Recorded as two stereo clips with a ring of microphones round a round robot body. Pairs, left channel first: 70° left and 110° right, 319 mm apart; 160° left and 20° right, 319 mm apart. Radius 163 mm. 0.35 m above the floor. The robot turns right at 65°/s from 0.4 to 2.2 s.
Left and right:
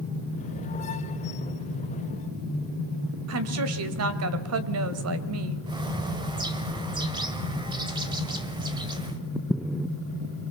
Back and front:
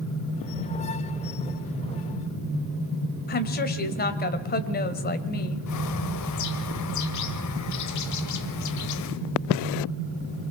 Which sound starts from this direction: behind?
A bird, at 5.7 s.